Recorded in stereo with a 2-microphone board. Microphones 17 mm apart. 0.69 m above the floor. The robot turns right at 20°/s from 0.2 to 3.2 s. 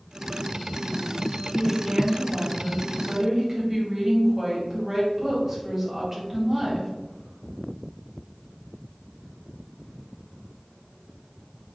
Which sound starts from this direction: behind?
A woman speaking, at 1.5 s.